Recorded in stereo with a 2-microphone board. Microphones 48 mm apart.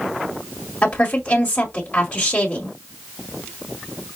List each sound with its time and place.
0.8 s a woman speaking: 25° left (ahead or behind), 1.6 m